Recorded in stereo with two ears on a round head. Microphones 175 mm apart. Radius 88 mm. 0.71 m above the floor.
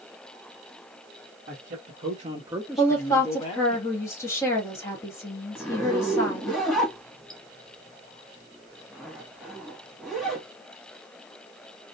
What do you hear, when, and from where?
1.5 s a man speaking: 55° right (ahead or behind), 1.2 m; by 3.8 s 35° left (ahead or behind), 1.2 m
2.8 s a woman speaking: 15° left (ahead or behind), 1.4 m
5.5 s a zipper: centre (ahead or behind), 1.2 m